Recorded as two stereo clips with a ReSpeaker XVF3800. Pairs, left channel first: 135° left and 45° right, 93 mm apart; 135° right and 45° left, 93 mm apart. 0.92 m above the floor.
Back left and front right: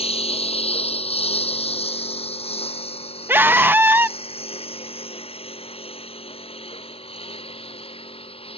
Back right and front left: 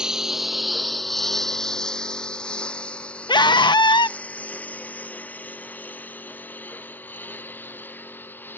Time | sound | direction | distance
0.0 | a lawn mower | 130° left | ?
3.3 | a scream | 110° right | ?